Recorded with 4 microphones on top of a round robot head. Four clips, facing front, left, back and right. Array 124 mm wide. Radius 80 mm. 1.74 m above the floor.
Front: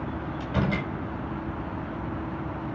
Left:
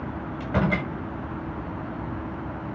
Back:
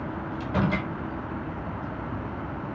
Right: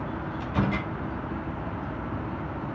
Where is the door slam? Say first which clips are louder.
Left 3 dB, back 2 dB; 110° left, 6.5 m.